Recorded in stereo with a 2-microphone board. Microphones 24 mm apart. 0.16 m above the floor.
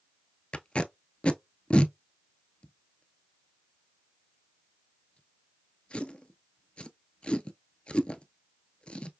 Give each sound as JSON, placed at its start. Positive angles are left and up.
{"t": 0.5, "sound": "tape being pulled", "side_deg": 50, "distance_m": 0.5}